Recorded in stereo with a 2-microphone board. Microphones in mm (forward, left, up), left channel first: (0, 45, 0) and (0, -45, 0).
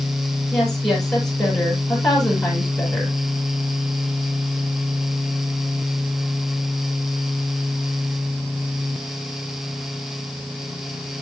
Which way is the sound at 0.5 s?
5° left (ahead or behind).